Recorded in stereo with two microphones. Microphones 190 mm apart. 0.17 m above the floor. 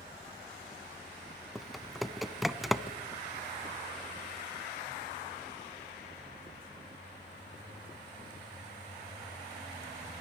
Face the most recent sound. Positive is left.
turn(degrees=0)  # may be behind; listen again after turning